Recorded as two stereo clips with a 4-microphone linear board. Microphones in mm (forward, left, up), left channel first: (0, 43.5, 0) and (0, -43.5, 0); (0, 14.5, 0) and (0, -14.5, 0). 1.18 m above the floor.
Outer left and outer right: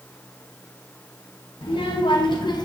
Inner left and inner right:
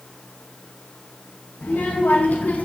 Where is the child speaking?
85° left, 0.9 m; by 2.7 s 50° left (ahead or behind), 0.7 m.